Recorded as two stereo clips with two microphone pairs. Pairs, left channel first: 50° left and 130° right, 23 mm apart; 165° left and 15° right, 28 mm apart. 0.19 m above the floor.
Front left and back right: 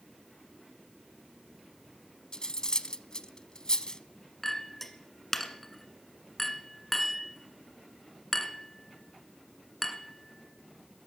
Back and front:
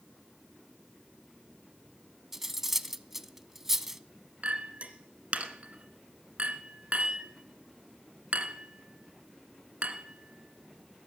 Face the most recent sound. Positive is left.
turn(degrees=-30)